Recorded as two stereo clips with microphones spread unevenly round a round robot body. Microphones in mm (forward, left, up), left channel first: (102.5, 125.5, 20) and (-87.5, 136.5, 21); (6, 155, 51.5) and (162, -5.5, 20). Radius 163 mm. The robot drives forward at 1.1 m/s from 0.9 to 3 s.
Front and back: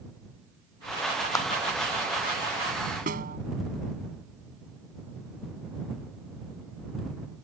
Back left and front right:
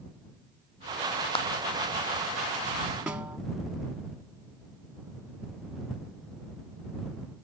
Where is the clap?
70° left.